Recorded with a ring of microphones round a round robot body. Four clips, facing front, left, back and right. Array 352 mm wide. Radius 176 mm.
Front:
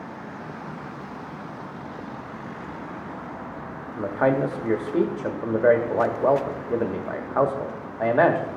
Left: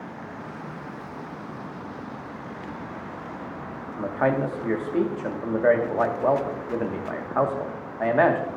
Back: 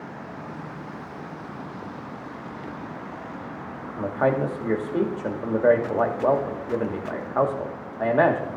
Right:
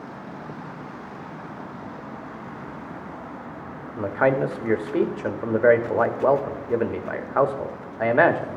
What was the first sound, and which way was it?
A man speaking, 85° right.